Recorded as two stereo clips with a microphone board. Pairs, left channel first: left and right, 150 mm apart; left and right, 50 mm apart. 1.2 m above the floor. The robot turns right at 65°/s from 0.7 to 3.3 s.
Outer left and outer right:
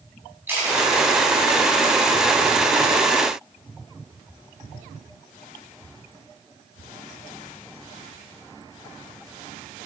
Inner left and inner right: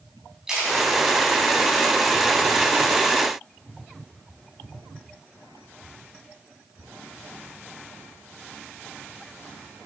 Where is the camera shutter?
15° right (ahead or behind), 3.5 m; by 0.8 s 10° right (ahead or behind), 3.5 m.